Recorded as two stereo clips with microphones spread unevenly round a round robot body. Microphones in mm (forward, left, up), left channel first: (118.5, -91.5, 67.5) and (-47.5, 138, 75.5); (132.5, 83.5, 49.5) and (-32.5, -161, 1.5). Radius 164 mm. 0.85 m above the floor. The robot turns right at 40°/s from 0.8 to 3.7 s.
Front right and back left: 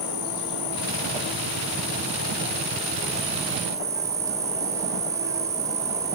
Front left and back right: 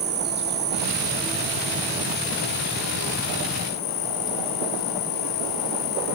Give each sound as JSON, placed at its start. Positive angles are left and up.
{"t": 0.0, "sound": "an insect", "azimuth_deg": -70, "distance_m": 4.5}